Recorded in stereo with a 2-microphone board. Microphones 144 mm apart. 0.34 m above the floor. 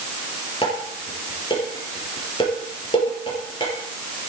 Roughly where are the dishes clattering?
Left.